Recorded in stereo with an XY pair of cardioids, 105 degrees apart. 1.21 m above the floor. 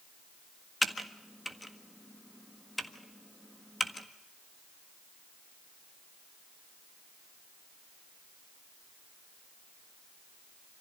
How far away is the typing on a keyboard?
About 1.6 m.